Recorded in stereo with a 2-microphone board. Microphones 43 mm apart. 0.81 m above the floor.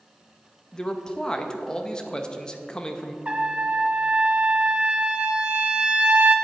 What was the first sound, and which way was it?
A man speaking, 20° left (ahead or behind).